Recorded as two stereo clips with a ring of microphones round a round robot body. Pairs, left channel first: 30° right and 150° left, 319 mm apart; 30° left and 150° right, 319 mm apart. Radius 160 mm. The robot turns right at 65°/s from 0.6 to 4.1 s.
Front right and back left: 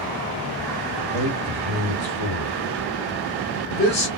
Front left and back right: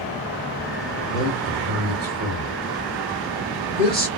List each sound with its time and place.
1.1 s a man speaking: 125° left, 1.7 m; by 4.1 s 45° right, 1.7 m